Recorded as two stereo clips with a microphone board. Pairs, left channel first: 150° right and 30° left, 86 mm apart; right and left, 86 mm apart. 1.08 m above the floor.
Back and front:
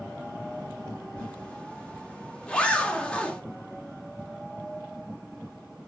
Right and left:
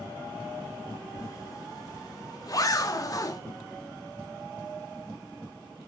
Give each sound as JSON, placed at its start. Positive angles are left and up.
{"t": 1.2, "sound": "a zipper", "azimuth_deg": -75, "distance_m": 0.8}